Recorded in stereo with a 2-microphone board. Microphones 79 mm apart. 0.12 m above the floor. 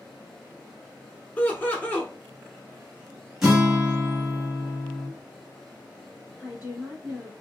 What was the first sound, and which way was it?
Laughter, 20° left (ahead or behind).